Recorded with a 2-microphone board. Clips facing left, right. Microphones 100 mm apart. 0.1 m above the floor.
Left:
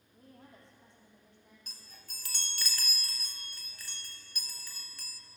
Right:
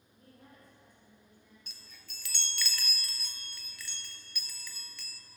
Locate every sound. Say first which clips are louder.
0.1 s a woman speaking: left 2 dB; 30° left (ahead or behind), 4 m; by 1.6 s 20° left (ahead or behind), 5.5 m
1.7 s a chime: left 1 dB; 40° left (ahead or behind), 0.7 m